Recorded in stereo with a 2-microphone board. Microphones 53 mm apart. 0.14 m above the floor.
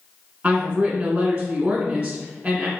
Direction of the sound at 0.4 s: 30° right (ahead or behind).